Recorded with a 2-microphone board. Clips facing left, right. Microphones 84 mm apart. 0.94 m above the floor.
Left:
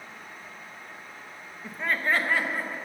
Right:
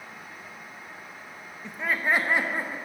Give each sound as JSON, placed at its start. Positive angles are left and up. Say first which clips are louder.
{"t": 1.6, "sound": "laughter", "louder": "right 1 dB", "side_deg": 10, "distance_m": 0.8}